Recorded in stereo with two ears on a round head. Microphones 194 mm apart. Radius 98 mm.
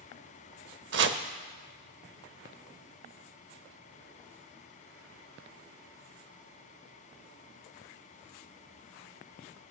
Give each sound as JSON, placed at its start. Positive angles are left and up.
{"t": 0.9, "sound": "chopping", "side_deg": -55, "distance_m": 0.5}